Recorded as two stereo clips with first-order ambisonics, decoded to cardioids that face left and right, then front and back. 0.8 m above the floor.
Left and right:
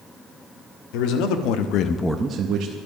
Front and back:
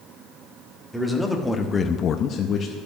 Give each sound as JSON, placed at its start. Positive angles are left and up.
{"t": 0.9, "sound": "a man speaking", "azimuth_deg": 95, "distance_m": 1.7}